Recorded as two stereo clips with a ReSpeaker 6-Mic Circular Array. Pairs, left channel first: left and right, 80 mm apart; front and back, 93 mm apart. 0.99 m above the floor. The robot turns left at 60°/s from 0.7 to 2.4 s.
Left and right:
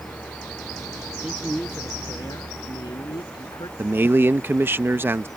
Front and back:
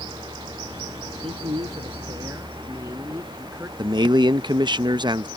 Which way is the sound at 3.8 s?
150° right.